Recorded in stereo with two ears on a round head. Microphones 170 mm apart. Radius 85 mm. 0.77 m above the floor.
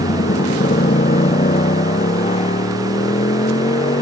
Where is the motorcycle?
40° left (ahead or behind); by 4.0 s 30° left (ahead or behind).